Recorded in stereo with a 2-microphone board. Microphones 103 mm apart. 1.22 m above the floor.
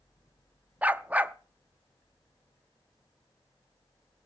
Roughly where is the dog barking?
Centre.